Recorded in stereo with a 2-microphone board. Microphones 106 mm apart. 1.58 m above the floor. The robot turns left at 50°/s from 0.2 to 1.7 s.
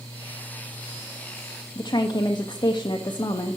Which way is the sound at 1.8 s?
40° left (ahead or behind).